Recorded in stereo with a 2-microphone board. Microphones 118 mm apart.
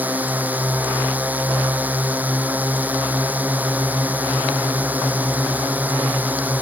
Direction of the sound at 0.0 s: 15° right (ahead or behind).